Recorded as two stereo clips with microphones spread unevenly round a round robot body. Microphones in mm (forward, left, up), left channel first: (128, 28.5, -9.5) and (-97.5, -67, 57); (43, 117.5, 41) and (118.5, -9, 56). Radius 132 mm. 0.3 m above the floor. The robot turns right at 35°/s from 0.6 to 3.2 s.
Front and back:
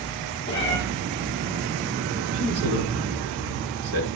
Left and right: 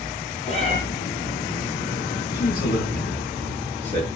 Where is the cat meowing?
75° left, 6 m; by 0.8 s 80° left, 6 m.